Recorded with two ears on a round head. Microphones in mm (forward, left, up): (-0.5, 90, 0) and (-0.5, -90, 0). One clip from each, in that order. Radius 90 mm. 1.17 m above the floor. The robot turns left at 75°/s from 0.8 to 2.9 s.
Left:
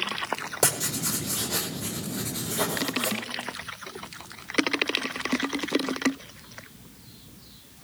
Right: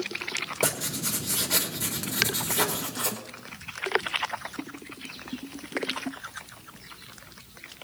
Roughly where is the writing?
Ahead left.